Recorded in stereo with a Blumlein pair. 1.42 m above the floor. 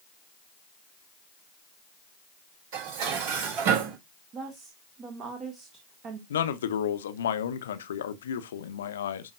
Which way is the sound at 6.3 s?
65° left.